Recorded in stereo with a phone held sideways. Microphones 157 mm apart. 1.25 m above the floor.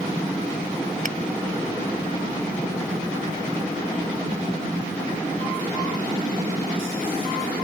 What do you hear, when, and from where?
1.1 s a finger snap: 55° right (ahead or behind)